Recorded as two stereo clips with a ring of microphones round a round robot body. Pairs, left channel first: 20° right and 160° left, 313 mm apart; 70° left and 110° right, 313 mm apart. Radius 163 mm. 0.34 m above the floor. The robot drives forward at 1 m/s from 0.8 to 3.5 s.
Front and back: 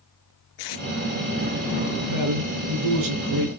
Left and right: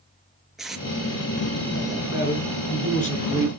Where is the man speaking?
125° left, 4 m; by 3.5 s 140° left, 5 m.